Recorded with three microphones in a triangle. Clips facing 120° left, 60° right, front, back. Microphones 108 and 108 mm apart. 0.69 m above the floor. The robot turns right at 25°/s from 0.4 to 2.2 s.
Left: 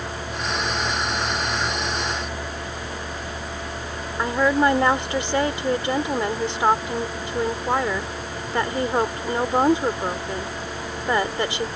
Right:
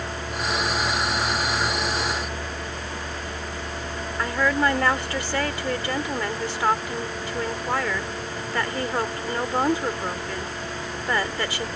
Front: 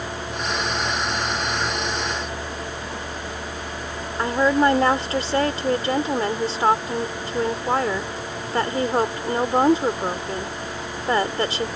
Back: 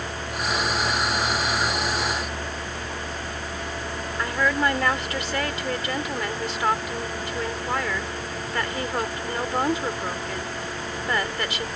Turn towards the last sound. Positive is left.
turn(degrees=55)